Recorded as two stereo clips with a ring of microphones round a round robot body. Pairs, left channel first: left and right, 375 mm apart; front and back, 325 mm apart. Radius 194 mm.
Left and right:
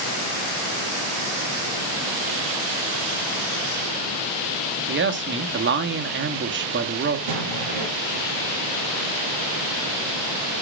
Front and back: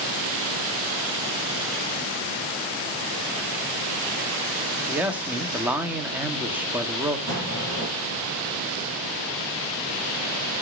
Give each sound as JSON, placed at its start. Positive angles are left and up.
{"t": 4.9, "sound": "a man speaking", "azimuth_deg": -100, "distance_m": 1.0}
{"t": 7.3, "sound": "an explosion", "azimuth_deg": -120, "distance_m": 9.5}